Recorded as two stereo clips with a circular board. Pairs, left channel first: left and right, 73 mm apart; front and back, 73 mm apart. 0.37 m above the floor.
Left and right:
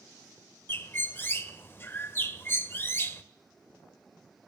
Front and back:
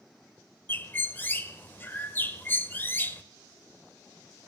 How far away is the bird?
About 0.5 m.